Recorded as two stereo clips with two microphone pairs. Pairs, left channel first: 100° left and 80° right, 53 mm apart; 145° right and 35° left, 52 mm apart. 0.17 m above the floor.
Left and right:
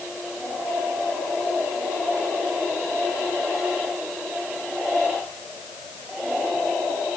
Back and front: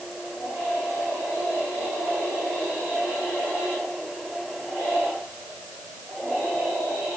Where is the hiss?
I don't hear a hiss.